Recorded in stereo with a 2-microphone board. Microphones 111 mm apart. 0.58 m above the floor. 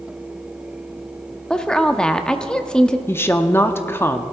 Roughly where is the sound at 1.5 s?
Centre.